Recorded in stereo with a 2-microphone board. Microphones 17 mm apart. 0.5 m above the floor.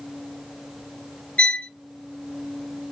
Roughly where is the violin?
Left.